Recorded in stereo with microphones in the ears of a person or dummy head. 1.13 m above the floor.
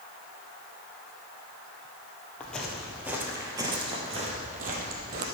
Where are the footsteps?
5° left (ahead or behind), 1.7 m; by 5.3 s 60° right (ahead or behind), 2.5 m.